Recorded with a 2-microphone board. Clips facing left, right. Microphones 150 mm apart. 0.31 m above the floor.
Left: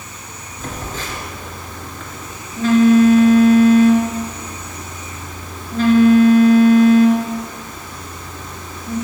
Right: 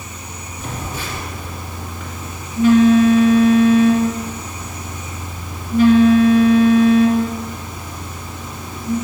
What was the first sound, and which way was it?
A phone buzzing, 10° right (ahead or behind).